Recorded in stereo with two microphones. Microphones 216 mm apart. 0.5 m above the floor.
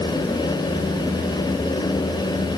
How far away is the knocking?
I don't hear knocking.